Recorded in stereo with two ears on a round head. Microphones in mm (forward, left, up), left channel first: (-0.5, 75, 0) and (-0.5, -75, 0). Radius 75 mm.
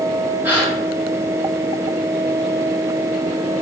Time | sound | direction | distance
0.4 | a gasp | 10° right (ahead or behind) | 3 m